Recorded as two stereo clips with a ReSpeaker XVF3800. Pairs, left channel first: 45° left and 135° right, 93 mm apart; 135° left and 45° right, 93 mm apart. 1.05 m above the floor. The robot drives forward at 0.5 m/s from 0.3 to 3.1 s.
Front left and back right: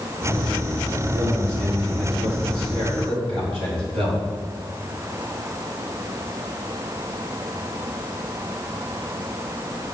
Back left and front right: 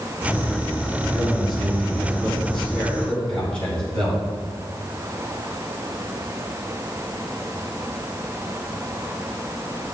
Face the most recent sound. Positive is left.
turn(degrees=-145)